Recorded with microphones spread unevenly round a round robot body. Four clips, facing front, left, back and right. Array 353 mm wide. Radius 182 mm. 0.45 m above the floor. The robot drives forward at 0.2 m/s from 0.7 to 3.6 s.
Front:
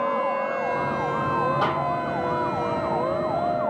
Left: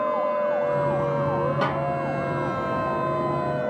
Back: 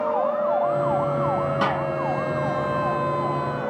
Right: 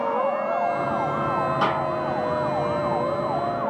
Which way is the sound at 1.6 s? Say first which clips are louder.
Right 2 dB, back 1 dB; 155° left.